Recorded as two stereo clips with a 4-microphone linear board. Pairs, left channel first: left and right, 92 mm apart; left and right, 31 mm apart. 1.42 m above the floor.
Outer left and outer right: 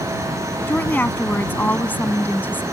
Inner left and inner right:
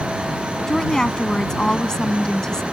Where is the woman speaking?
15° left (ahead or behind).